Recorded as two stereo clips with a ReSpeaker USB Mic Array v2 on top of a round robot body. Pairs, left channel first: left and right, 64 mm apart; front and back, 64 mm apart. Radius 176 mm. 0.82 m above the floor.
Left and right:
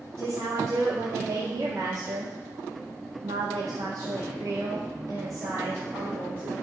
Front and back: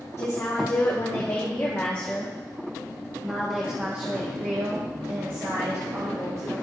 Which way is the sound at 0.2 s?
45° right.